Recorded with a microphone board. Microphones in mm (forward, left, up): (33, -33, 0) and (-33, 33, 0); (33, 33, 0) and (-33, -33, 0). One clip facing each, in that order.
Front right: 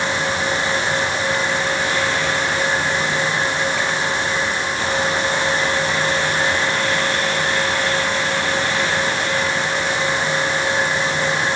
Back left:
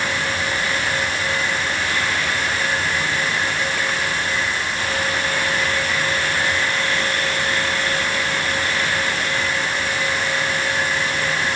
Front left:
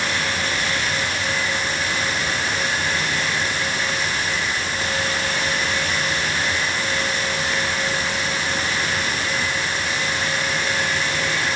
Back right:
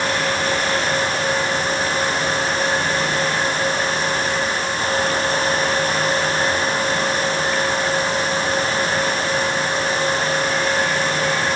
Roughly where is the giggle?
No giggle in this recording.